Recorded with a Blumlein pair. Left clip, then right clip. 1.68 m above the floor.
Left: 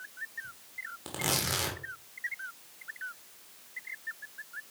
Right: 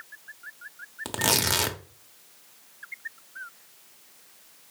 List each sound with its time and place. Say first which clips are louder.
1.1 s tearing paper: right 7 dB; 50° right, 1.0 m